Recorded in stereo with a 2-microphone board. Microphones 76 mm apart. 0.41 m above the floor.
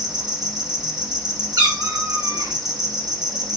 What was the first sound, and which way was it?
An insect, 60° right (ahead or behind).